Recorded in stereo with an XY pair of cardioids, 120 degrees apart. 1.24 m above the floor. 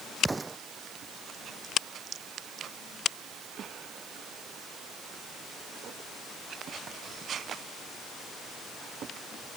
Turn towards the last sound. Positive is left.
turn(degrees=-15)